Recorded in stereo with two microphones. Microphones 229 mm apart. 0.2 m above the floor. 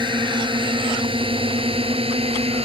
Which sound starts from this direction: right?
A drone, at 0.0 s.